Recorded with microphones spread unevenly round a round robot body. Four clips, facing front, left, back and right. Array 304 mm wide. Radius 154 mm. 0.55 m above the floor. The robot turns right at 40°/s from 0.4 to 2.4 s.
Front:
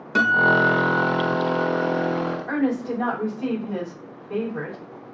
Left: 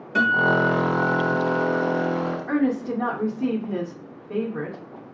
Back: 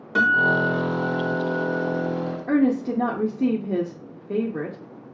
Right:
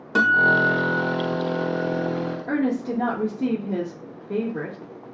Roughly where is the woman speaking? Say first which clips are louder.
Even, back 6 dB; behind.